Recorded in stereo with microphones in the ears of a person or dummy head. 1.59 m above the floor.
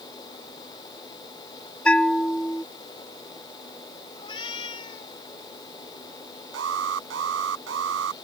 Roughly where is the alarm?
Right.